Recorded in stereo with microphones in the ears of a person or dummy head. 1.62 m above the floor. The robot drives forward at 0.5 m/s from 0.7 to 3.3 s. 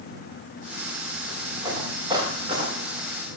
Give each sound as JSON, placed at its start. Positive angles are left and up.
{"t": 1.6, "sound": "footsteps", "side_deg": -25, "distance_m": 9.0}